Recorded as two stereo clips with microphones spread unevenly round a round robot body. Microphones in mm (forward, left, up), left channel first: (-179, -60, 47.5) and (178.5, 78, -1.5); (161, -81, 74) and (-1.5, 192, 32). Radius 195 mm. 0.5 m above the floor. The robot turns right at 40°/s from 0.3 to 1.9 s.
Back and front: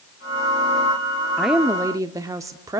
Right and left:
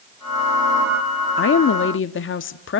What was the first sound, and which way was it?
A woman speaking, 55° right.